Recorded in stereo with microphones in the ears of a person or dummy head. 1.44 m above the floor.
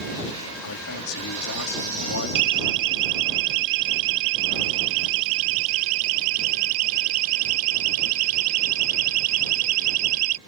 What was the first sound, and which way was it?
A man speaking, 80° left.